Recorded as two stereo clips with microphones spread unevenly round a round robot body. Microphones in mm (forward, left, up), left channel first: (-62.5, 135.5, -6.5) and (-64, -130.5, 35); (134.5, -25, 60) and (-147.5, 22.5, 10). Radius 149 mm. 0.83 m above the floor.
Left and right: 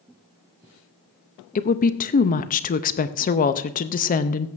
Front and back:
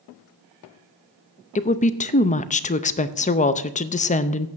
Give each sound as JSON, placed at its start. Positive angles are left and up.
{"t": 1.6, "sound": "a woman speaking", "azimuth_deg": 60, "distance_m": 0.5}